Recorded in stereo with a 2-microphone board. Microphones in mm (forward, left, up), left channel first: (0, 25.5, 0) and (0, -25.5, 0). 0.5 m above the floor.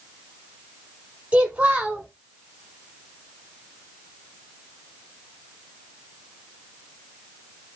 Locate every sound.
1.3 s a child speaking: 25° right (ahead or behind), 1.2 m